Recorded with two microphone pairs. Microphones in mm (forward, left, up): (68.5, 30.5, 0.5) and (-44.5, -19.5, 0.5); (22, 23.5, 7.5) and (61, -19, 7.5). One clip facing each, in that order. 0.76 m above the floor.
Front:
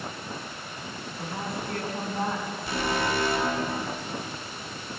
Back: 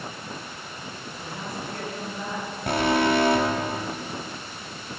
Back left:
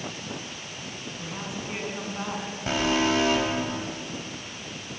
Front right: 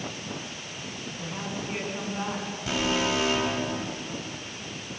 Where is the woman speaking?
45° left, 6 m.